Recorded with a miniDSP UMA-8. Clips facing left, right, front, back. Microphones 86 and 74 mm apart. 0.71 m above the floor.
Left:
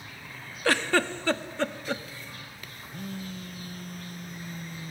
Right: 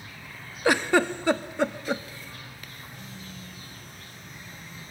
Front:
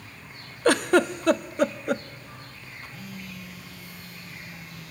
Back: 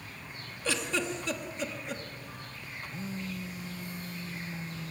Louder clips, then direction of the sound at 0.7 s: Right 3 dB, front 12 dB; 15° right.